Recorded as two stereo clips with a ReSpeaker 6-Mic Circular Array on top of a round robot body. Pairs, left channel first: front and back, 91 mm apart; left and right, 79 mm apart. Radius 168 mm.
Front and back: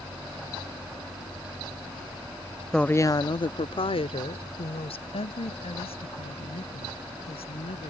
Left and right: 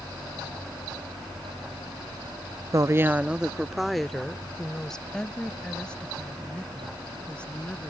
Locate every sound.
2.7 s a woman speaking: 85° right; by 7.9 s 15° left